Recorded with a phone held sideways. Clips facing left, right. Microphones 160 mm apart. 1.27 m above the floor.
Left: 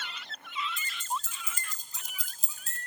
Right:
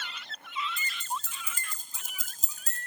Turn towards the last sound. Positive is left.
turn(degrees=-35)  # may be behind; listen again after turning